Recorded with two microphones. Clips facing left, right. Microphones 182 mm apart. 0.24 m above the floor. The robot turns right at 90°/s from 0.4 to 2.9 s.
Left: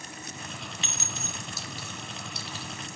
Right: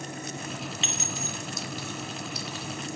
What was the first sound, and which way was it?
A clink, 25° right (ahead or behind).